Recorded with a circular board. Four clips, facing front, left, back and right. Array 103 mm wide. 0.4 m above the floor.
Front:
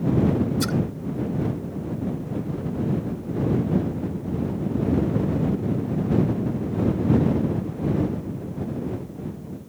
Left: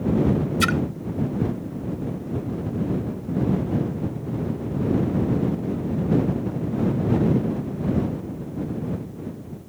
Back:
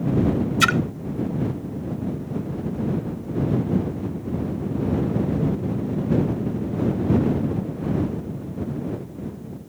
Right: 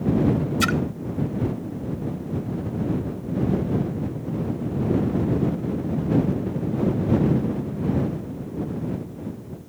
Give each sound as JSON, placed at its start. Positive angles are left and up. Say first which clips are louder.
{"t": 0.6, "sound": "a splash", "louder": "even, back 4 dB", "azimuth_deg": 175}